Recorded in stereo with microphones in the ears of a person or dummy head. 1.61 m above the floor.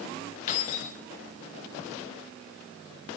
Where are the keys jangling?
40° left (ahead or behind), 1.4 m.